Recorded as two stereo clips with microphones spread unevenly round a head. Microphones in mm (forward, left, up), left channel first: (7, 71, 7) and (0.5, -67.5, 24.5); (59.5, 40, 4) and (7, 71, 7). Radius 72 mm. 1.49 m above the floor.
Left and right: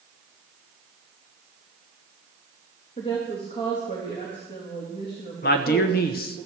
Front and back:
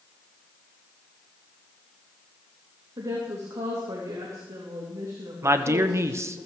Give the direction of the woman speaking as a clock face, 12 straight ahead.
7 o'clock.